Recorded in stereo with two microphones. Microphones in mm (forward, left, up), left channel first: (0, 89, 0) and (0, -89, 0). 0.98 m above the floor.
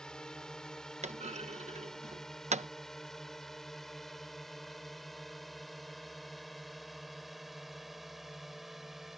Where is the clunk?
40° right (ahead or behind).